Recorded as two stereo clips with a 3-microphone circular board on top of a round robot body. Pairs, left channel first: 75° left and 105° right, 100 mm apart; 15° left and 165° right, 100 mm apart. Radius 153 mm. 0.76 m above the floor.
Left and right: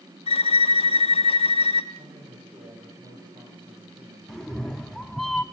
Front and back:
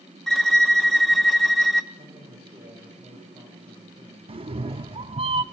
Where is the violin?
100° left, 1.1 m.